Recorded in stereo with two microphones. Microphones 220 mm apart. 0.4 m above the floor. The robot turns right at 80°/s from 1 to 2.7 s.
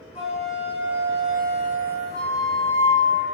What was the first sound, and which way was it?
A flute, 155° left.